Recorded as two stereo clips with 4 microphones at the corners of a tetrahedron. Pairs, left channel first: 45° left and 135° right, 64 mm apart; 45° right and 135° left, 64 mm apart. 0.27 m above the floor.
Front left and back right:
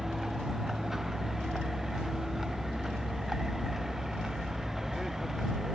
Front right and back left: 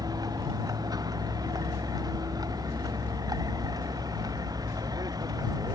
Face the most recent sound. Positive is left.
turn(degrees=140)